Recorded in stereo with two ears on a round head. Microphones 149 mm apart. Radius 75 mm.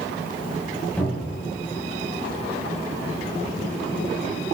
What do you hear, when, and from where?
1.0 s a cupboard door: 10° left (ahead or behind), 7.5 m